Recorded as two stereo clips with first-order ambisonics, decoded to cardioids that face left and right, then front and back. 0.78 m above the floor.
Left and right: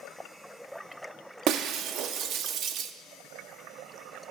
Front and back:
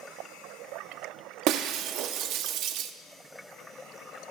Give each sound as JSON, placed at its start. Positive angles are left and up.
{"t": 1.5, "sound": "breaking glass", "azimuth_deg": -140, "distance_m": 0.6}